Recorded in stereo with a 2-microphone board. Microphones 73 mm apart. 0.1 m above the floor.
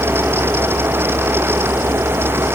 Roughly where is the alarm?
No alarm in this recording.